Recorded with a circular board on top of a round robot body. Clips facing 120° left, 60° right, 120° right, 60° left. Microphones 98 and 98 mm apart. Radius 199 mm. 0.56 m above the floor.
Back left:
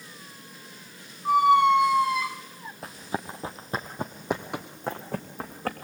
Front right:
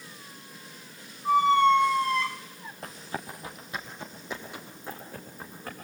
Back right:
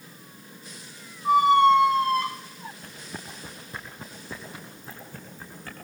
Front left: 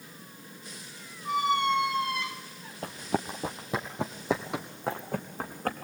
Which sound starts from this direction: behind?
A squeak, at 1.2 s.